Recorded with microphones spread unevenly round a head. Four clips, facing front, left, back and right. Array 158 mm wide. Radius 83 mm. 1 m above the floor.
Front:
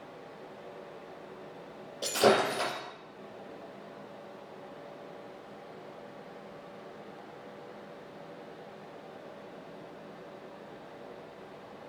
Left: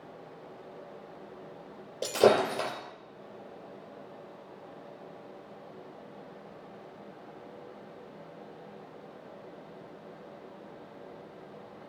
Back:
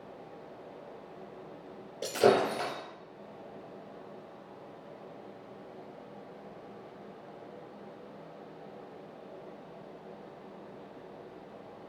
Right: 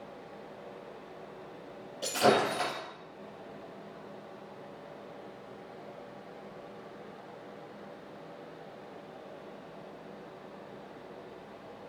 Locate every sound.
2.0 s breaking glass: 100° left, 5 m